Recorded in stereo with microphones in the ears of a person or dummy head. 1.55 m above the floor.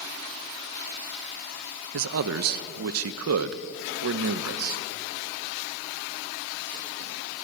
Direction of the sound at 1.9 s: 70° right (ahead or behind).